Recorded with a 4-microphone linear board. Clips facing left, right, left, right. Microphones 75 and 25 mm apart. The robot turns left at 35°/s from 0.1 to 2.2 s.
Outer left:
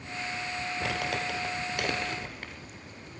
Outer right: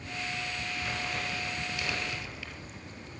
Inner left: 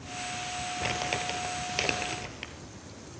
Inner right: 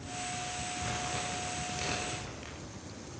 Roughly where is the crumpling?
Left.